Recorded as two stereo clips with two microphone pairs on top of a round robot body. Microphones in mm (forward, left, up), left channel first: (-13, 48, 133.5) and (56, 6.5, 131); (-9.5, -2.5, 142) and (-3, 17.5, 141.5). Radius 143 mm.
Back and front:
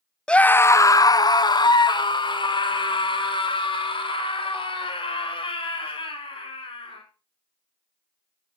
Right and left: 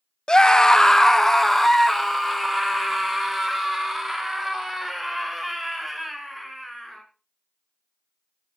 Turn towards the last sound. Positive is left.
turn(degrees=160)